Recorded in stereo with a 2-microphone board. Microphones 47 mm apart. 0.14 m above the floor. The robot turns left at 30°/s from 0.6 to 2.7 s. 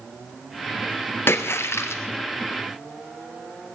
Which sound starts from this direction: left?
A splash, at 1.3 s.